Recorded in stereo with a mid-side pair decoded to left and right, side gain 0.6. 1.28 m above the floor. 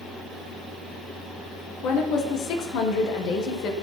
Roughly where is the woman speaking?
Ahead left.